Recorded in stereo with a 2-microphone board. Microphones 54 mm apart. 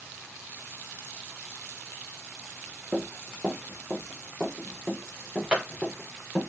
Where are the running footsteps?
20° right (ahead or behind), 4.5 m.